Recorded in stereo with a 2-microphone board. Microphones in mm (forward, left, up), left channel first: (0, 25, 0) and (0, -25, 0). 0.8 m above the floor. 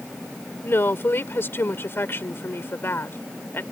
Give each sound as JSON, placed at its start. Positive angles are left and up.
{"t": 0.6, "sound": "a woman speaking", "side_deg": 50}